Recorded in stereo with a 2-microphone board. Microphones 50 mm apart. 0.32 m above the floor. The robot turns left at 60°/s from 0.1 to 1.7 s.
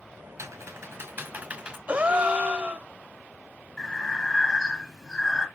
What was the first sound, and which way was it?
Typing on a keyboard, 70° right (ahead or behind).